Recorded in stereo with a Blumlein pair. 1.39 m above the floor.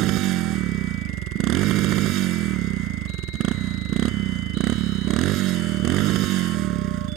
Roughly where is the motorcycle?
Ahead right.